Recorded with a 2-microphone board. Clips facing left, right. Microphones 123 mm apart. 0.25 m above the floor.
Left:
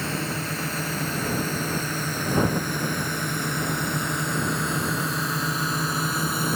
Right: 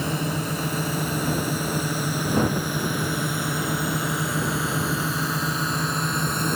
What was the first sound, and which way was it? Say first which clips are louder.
A drone: right 3 dB; 15° right (ahead or behind).